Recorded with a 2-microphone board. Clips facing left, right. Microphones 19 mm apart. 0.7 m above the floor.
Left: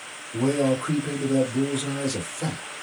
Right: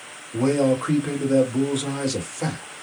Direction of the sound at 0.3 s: 15° right (ahead or behind).